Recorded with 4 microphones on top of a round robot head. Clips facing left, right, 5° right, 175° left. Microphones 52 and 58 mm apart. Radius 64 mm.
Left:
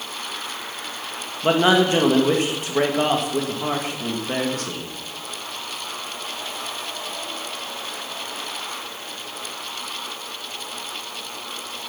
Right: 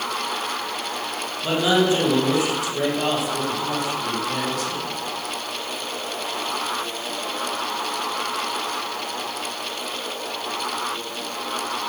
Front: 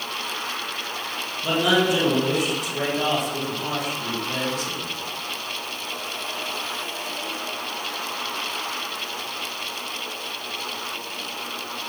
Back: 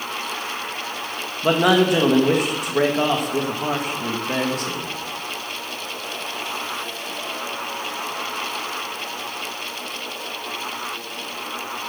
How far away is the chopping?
No chopping in this recording.